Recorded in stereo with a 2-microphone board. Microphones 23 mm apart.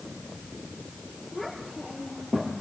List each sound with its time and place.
1.3 s a child speaking: centre (ahead or behind), 6.5 m; by 2.5 s 10° left (ahead or behind), 5 m